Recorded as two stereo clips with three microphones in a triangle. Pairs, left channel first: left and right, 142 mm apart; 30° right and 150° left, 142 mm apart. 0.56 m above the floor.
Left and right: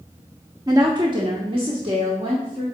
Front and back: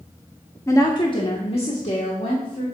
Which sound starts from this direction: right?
A woman speaking, at 0.7 s.